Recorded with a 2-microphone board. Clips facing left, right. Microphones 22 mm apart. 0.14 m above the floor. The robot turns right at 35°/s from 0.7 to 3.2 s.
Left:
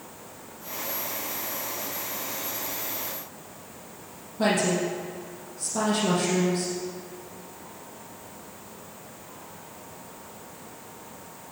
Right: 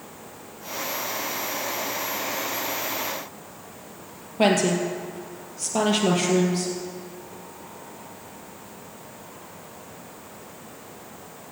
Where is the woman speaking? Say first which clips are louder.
Right 3 dB; 70° right (ahead or behind), 4 m.